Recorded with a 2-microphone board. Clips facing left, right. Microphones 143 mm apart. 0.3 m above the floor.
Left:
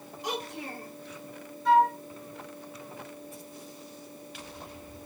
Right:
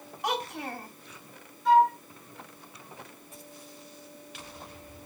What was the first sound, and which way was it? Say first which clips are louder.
A child speaking: right 3 dB; 60° right (ahead or behind).